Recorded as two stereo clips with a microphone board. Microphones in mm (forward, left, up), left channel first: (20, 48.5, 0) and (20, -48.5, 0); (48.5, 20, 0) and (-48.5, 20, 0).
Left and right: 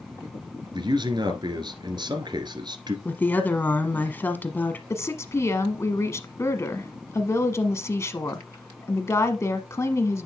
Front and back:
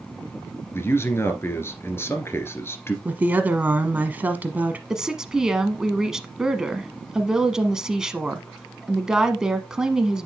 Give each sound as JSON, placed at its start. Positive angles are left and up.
{"t": 0.7, "sound": "a man speaking", "azimuth_deg": -60, "distance_m": 2.0}
{"t": 3.0, "sound": "a woman speaking", "azimuth_deg": 130, "distance_m": 1.2}
{"t": 4.9, "sound": "a woman speaking", "azimuth_deg": 105, "distance_m": 1.2}